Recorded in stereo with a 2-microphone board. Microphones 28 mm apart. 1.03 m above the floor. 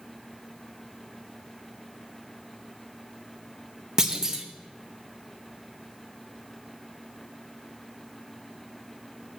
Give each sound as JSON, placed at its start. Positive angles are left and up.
{"t": 4.0, "sound": "a clunk", "side_deg": -20, "distance_m": 1.0}